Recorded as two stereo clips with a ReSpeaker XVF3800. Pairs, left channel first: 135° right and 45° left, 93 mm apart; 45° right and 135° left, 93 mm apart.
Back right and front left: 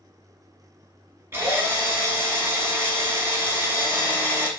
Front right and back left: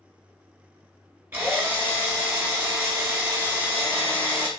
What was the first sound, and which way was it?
A drill, 85° left.